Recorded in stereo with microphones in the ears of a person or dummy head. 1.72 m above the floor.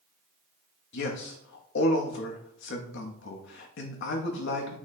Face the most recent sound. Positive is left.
turn(degrees=65)  # may be behind; listen again after turning